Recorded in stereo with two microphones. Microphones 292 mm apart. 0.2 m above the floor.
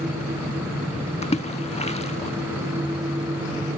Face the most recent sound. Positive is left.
turn(degrees=20)  # may be behind; listen again after turning